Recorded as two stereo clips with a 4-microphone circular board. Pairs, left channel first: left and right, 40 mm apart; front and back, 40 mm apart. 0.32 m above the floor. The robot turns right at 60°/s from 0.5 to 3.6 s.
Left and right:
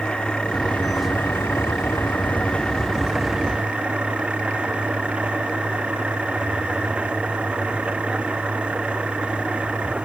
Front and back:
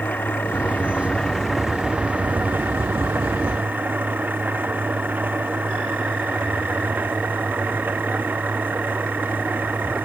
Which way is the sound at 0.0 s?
25° left.